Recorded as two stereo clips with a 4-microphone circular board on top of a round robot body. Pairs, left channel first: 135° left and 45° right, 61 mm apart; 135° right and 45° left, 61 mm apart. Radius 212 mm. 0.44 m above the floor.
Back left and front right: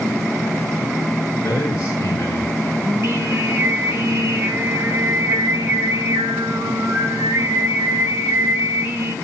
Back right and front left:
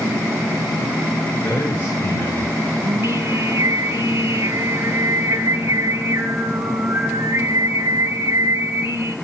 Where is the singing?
Straight ahead, 3 m.